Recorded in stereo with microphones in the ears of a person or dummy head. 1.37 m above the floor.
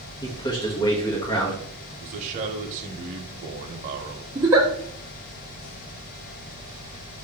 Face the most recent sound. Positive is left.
turn(degrees=-15)  # may be behind; listen again after turning